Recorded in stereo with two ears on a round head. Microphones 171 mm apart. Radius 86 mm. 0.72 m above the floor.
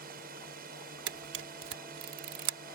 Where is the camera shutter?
65° right (ahead or behind).